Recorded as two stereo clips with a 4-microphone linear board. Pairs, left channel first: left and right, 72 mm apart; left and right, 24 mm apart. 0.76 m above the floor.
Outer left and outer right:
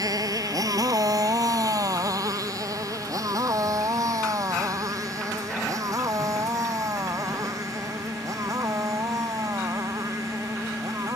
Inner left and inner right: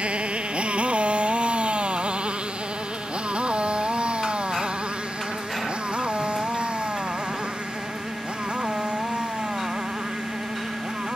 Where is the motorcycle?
60° right (ahead or behind); by 11.2 s 50° right (ahead or behind).